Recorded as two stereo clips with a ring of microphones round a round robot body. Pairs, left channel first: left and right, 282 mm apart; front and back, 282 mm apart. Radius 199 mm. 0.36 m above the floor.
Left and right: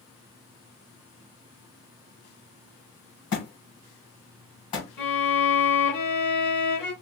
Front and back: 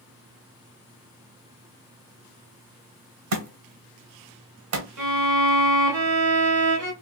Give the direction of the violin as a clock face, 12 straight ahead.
6 o'clock.